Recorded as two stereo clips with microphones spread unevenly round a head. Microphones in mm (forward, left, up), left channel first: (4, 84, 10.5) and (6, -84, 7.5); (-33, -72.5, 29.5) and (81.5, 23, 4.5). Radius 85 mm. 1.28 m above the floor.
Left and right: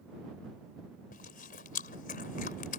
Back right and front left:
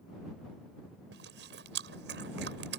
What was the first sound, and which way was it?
Chewing, 50° left.